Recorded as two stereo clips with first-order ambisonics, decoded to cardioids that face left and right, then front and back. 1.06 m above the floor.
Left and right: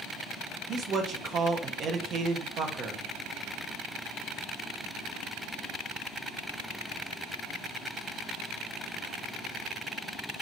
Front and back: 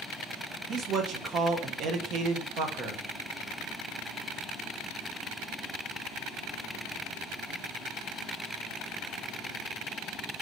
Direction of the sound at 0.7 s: 140° right.